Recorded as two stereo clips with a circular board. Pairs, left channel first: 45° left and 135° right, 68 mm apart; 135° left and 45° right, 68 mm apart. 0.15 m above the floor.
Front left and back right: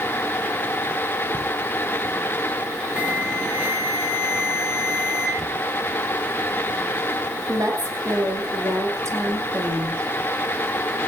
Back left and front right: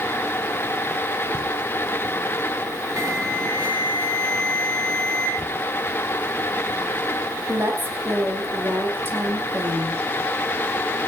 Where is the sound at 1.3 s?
65° right, 5.5 m.